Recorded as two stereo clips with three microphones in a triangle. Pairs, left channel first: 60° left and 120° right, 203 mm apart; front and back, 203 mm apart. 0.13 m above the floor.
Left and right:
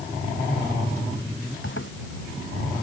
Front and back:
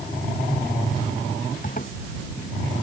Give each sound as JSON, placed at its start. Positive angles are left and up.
{"t": 1.6, "sound": "a zipper", "azimuth_deg": 50}